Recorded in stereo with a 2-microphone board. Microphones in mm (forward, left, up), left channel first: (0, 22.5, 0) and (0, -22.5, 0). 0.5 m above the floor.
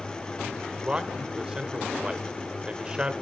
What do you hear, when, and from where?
0.8 s a man speaking: 20° right (ahead or behind), 1.6 m